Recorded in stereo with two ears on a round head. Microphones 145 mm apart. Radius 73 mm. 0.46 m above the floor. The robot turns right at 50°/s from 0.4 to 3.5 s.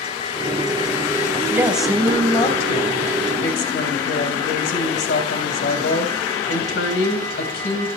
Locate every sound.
1.5 s a woman speaking: 15° right, 3 m; by 7.9 s 85° left, 3 m